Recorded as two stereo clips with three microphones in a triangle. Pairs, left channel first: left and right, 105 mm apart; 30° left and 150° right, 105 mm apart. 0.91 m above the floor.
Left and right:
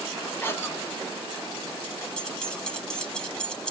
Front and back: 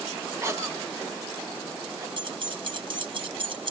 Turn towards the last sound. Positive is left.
turn(degrees=170)